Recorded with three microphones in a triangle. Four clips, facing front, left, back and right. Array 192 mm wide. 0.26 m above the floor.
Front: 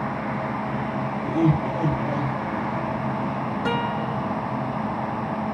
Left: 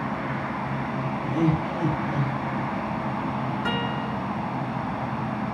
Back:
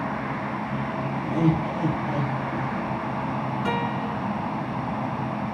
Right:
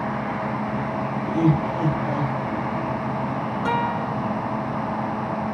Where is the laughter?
25° right, 6 m; by 3.0 s 35° right, 6.5 m.